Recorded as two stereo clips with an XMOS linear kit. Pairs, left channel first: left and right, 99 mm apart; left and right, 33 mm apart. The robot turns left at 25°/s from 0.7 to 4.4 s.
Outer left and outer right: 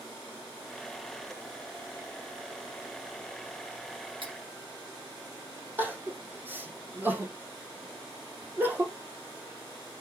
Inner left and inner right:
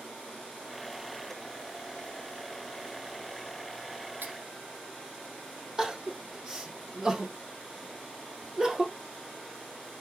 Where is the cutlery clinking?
60° right (ahead or behind), 2.5 m.